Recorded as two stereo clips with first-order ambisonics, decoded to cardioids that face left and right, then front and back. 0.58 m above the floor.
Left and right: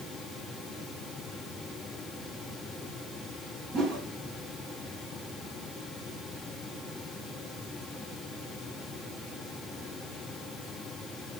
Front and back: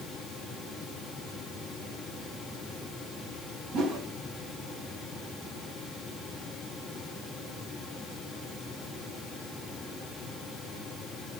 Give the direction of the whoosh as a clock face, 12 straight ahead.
5 o'clock.